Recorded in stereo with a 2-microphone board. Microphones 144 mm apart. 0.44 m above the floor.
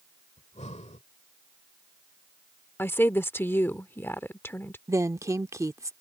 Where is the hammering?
No hammering in this recording.